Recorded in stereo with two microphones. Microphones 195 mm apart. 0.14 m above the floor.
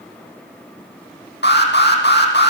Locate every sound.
1.4 s an alarm: 65° left (ahead or behind), 6 m